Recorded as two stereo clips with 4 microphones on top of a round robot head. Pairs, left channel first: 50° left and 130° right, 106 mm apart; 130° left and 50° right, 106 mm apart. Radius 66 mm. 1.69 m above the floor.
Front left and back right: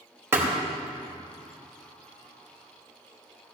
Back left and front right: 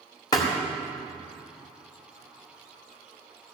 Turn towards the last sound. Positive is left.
turn(degrees=170)